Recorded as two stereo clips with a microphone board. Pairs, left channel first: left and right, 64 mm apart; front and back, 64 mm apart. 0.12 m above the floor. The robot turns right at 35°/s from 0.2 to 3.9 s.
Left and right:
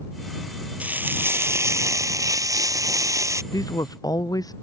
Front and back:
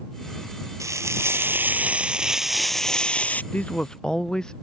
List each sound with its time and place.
0.8 s frying: 155° right; by 3.4 s 60° right
3.5 s a man speaking: 65° left; by 4.5 s 80° left